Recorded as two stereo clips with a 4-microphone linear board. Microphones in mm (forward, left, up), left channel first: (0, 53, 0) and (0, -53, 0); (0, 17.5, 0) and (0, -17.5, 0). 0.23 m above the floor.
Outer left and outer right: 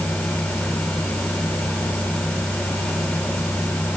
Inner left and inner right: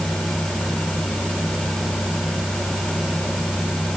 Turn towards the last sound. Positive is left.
No sound to turn to.